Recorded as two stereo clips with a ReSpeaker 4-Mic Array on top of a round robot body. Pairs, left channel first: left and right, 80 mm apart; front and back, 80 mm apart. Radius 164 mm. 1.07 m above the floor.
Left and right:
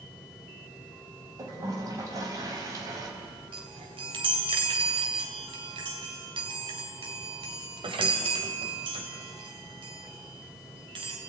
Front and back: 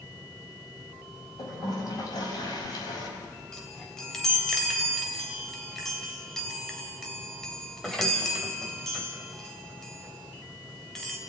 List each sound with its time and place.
1.4 s a toilet flushing: 40° right, 5 m
3.5 s a chime: 85° right, 2.5 m